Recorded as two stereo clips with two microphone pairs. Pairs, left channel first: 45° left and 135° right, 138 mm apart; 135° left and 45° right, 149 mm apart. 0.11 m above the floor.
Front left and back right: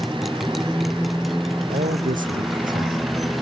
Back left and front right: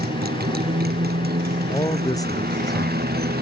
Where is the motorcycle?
50° right.